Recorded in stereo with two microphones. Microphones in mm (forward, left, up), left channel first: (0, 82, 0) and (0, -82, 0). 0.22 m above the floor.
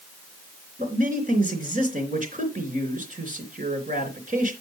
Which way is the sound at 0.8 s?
55° right (ahead or behind).